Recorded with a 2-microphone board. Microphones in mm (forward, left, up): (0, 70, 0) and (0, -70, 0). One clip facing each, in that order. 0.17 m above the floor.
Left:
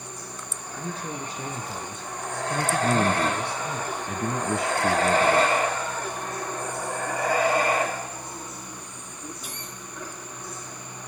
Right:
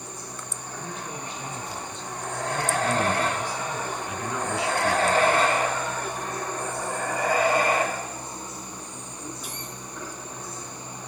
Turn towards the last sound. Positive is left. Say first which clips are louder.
# left 3 dB
turn(degrees=50)  # may be behind; listen again after turning